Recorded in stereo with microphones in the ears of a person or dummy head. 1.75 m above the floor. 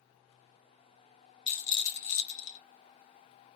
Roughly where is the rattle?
Left.